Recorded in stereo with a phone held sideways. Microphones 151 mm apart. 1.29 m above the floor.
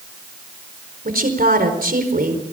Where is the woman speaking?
80° right, 4.5 m.